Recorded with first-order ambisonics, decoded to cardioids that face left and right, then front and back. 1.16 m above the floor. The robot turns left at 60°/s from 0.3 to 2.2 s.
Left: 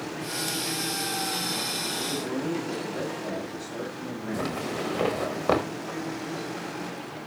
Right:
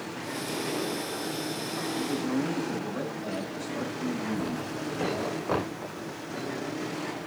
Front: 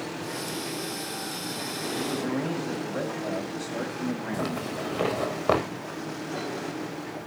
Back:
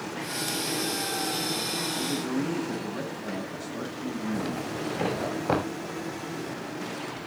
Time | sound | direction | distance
1.9 | a man speaking | 25° left | 7.5 m
4.3 | a zipper | 40° left | 5 m